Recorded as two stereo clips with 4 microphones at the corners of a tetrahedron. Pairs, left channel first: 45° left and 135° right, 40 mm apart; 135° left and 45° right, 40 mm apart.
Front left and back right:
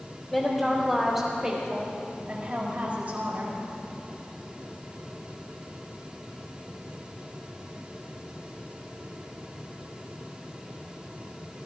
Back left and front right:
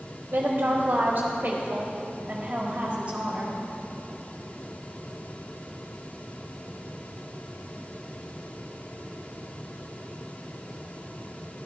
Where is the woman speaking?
35° right, 1.6 m; by 3.6 s 110° right, 2 m.